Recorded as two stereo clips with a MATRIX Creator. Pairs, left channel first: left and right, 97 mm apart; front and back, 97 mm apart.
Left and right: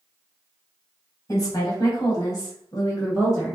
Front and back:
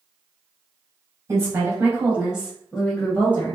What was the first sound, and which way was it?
A woman speaking, 130° left.